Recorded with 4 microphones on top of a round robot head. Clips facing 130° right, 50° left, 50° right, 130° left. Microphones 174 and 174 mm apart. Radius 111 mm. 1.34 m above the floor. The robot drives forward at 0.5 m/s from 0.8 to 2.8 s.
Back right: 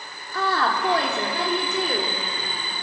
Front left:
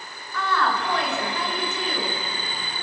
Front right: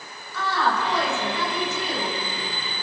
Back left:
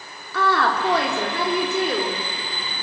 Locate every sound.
0.3 s a woman speaking: 170° left, 3.5 m